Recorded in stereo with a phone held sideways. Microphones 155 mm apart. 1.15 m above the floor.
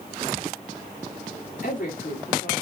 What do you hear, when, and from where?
1.6 s a woman speaking: 80° left, 1.9 m